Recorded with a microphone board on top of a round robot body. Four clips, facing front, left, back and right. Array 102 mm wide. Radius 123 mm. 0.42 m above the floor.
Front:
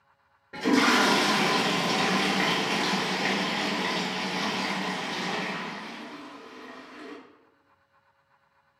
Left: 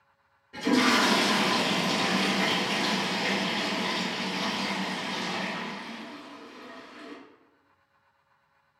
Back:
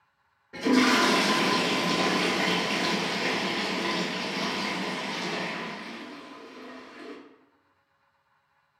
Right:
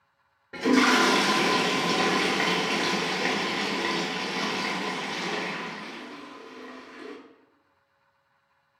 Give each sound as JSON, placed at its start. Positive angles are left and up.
{"t": 0.5, "sound": "a toilet flushing", "azimuth_deg": -60, "distance_m": 1.5}